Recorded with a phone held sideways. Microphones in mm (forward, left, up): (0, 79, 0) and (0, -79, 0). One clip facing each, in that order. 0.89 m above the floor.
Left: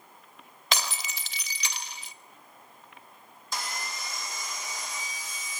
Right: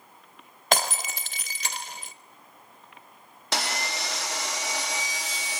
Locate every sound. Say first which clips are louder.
0.7 s breaking glass: right 7 dB; 50° right (ahead or behind), 0.9 m
3.5 s sawing: right 6 dB; 80° right, 1.1 m